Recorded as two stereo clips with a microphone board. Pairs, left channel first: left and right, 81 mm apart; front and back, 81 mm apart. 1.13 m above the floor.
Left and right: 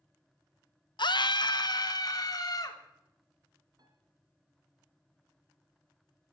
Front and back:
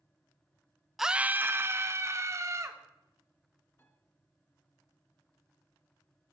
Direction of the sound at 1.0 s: 90° left.